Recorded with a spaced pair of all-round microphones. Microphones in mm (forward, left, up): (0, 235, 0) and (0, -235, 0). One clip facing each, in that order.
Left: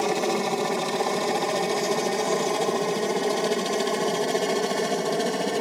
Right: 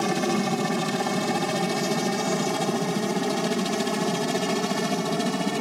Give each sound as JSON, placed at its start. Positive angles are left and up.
{"t": 0.0, "sound": "a helicopter", "side_deg": -35}